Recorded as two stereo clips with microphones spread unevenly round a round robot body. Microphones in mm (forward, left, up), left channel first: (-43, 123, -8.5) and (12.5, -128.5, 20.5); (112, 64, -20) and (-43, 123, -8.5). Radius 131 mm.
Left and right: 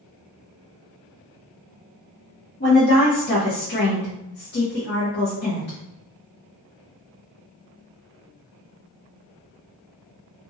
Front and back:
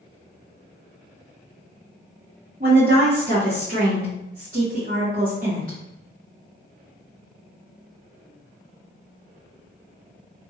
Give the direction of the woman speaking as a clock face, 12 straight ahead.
8 o'clock.